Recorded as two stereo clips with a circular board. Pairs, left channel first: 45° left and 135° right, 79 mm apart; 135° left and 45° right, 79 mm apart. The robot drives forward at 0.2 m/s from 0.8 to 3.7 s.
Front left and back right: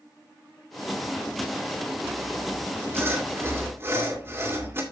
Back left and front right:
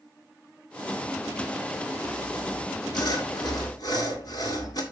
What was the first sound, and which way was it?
Sawing, 165° left.